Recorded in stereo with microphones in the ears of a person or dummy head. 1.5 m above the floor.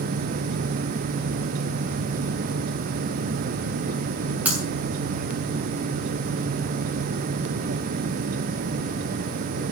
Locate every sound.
4.5 s breaking glass: 15° right (ahead or behind), 6 m